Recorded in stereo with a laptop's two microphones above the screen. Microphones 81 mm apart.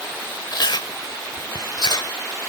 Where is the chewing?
65° left (ahead or behind).